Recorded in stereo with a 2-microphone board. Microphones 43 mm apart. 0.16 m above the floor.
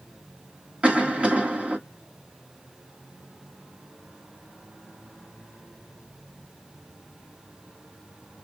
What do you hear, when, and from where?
0.8 s a cough: 25° right (ahead or behind), 1.2 m